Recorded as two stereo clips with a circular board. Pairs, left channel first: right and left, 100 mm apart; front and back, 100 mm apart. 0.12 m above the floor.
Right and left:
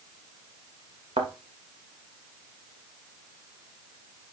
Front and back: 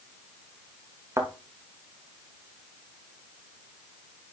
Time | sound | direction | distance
1.2 | a thud | 120° left | 3 m